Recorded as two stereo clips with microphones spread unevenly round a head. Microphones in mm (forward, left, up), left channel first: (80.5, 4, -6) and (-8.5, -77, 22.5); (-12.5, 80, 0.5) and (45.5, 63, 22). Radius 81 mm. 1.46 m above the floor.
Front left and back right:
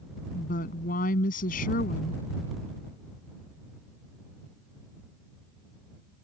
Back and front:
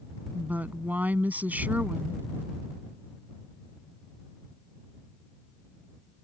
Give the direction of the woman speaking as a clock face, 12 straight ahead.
11 o'clock.